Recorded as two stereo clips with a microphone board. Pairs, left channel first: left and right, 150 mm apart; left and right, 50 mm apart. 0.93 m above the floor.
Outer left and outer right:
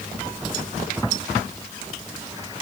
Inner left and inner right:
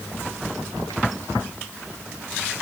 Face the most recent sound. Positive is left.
No sound to turn to.